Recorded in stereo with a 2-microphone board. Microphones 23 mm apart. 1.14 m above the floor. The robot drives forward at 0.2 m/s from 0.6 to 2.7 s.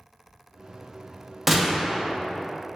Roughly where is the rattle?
I don't hear a rattle.